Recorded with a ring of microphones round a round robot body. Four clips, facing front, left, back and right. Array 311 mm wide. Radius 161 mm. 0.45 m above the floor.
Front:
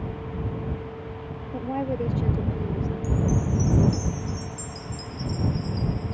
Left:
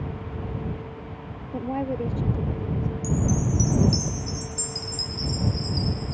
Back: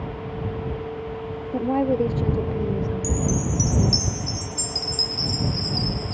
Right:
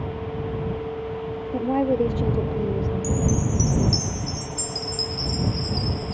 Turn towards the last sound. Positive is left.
turn(degrees=175)